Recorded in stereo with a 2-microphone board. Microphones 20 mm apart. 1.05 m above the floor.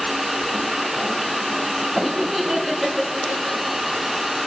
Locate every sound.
2.0 s laughter: 15° right (ahead or behind), 2.5 m; by 3.8 s 35° left (ahead or behind), 1.6 m